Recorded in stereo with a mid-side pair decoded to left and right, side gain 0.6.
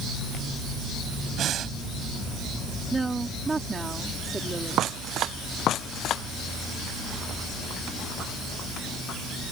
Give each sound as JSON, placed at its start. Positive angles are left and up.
{"t": 1.4, "sound": "breathing", "azimuth_deg": -50}
{"t": 2.9, "sound": "a woman speaking", "azimuth_deg": -20}